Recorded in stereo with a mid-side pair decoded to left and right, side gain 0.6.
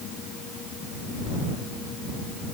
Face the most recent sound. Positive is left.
No sound to turn to.